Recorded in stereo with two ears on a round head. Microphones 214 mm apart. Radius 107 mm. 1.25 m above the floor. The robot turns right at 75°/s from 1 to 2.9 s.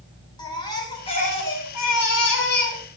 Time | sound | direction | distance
0.4 | a baby crying | 20° left | 7 m